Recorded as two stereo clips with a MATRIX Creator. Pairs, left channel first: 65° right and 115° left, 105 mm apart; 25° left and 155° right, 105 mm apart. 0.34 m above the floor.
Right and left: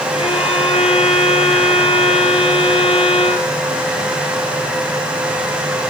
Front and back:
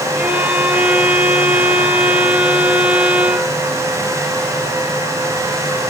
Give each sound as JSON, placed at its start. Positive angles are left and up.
{"t": 0.1, "sound": "a violin", "azimuth_deg": -80, "distance_m": 2.5}